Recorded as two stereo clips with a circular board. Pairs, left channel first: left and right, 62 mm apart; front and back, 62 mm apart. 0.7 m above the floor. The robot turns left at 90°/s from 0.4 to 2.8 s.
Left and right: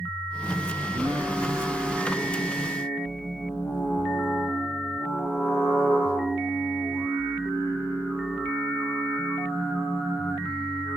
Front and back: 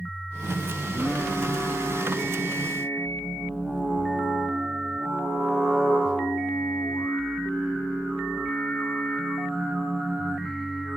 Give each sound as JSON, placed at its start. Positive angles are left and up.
{"t": 0.8, "sound": "singing", "azimuth_deg": -85, "distance_m": 8.5}